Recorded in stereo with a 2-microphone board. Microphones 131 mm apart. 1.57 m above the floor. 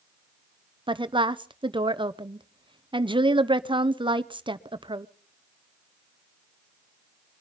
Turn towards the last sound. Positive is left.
turn(degrees=-40)  # may be behind; listen again after turning